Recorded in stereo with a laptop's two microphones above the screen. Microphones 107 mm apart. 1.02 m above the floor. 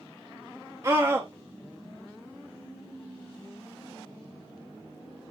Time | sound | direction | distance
0.8 | a scream | 30° right (ahead or behind) | 0.6 m